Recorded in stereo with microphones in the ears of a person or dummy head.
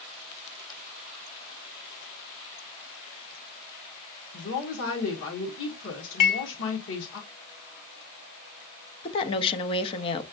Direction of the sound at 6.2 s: 55° left (ahead or behind).